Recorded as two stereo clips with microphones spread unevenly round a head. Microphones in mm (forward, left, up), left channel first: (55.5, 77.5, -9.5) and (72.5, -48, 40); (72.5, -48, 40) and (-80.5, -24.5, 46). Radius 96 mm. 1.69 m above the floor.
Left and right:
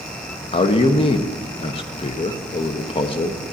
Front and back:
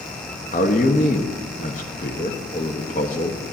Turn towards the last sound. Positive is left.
turn(degrees=40)